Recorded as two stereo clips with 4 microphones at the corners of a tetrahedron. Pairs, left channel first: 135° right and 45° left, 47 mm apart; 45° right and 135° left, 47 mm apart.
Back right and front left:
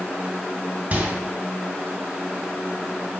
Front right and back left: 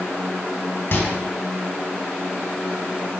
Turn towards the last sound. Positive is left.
turn(degrees=-10)